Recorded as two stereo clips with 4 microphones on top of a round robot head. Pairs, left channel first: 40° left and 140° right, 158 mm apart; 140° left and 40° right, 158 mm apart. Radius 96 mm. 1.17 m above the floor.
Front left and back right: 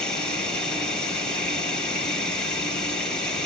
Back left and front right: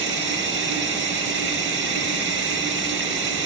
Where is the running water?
45° right, 5 m.